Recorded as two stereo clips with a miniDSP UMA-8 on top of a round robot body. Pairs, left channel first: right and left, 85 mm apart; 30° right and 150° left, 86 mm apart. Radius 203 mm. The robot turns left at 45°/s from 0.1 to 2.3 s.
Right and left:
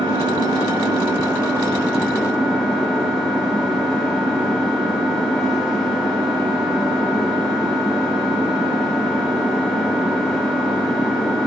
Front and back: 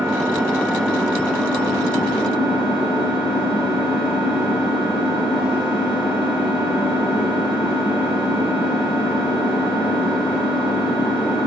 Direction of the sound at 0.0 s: 95° left.